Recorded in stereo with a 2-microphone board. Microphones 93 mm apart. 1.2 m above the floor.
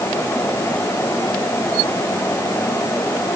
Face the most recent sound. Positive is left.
No sound to turn to.